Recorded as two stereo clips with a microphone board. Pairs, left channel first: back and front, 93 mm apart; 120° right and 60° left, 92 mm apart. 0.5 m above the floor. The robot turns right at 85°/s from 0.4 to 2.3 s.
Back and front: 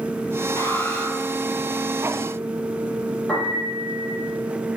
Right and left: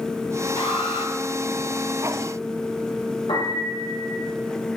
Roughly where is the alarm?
Behind right.